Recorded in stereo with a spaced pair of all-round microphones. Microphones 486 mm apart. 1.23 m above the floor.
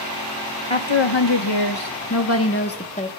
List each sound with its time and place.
0.7 s a woman speaking: 75° left (ahead or behind), 1.2 m; by 3.1 s 15° left (ahead or behind), 1.2 m